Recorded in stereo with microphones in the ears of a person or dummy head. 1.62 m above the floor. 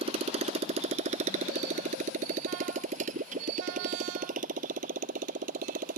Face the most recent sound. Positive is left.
turn(degrees=-50)  # may be behind; listen again after turning